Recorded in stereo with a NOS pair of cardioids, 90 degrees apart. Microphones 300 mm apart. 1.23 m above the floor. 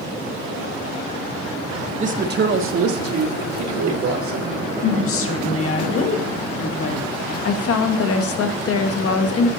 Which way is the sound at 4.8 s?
45° left.